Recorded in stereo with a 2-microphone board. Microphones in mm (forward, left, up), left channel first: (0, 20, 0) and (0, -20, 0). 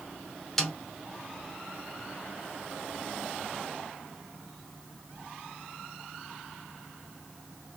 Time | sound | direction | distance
0.6 | a snare drum | 10° left (ahead or behind) | 1.0 m